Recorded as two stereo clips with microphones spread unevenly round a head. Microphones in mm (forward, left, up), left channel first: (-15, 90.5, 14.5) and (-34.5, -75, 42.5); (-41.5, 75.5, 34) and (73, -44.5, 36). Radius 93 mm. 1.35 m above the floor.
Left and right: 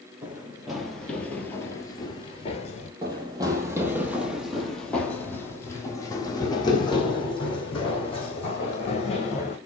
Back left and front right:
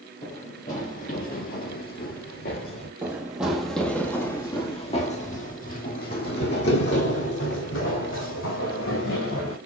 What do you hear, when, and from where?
0.2 s running footsteps: 170° right, 2.5 m; by 2.9 s 125° left, 1.8 m
3.0 s running footsteps: 115° right, 1.6 m; by 9.6 s 140° left, 3.5 m